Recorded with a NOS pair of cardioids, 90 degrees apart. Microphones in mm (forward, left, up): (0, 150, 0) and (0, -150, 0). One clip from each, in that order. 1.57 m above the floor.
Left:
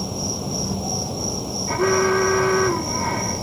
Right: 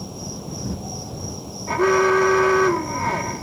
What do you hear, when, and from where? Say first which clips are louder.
0.0 s an insect: left 7 dB; 50° left
1.7 s an alarm: right 2 dB; 15° right